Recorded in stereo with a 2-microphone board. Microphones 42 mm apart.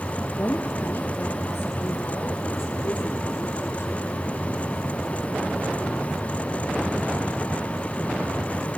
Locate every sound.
0.4 s a woman speaking: 65° left (ahead or behind), 3 m; by 4.1 s 80° left, 6.5 m